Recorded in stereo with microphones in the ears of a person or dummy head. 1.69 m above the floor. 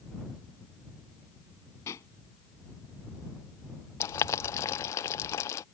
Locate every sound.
1.9 s a pop: 20° left (ahead or behind)
4.0 s boiling: 20° left (ahead or behind)